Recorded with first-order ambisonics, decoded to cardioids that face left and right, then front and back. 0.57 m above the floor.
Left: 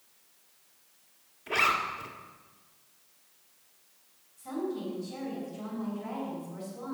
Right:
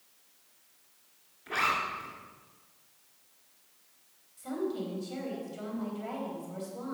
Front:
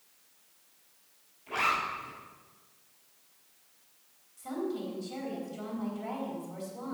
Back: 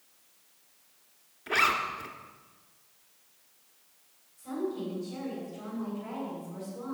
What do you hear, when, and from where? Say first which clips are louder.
1.5 s a zipper: left 3 dB, back 3 dB; straight behind, 1.6 m
4.4 s a woman speaking: even, back 1 dB; 65° right, 3.5 m